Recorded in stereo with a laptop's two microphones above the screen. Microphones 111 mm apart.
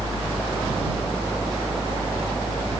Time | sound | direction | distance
0.0 | a fan | 15° right (ahead or behind) | ?